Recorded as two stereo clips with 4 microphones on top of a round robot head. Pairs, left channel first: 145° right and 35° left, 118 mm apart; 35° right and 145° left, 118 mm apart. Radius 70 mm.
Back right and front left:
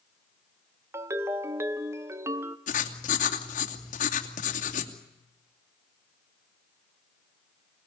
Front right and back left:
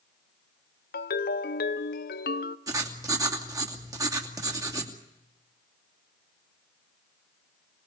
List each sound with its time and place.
0.9 s a ringtone: 35° right, 0.8 m
2.7 s writing: 155° right, 2.5 m